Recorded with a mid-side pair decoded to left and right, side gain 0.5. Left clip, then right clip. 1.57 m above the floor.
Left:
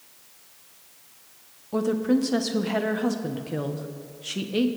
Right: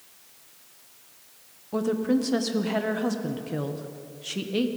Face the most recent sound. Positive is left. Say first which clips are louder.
# left 1 dB
turn(degrees=5)